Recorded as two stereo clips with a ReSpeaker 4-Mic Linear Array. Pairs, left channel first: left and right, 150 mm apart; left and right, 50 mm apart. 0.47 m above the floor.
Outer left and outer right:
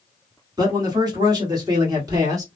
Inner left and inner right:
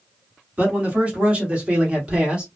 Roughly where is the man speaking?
Right.